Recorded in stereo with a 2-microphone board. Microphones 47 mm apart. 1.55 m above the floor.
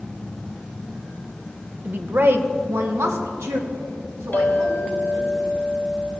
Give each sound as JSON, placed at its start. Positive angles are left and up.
{"t": 1.9, "sound": "a woman speaking", "side_deg": -40, "distance_m": 0.9}
{"t": 4.3, "sound": "a clink", "side_deg": 45, "distance_m": 1.8}